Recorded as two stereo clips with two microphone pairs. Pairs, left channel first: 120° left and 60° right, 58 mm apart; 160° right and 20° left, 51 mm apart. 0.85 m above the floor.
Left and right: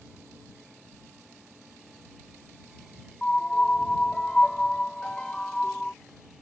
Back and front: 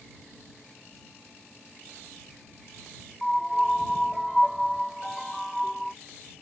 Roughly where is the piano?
Left.